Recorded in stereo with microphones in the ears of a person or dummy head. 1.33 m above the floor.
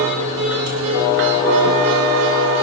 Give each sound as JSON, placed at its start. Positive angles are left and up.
{"t": 0.0, "sound": "a machine running", "side_deg": -75, "distance_m": 2.5}